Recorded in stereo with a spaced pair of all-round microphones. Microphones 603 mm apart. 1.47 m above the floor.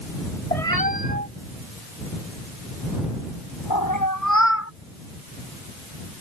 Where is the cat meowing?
75° left (ahead or behind); by 4.7 s 20° left (ahead or behind).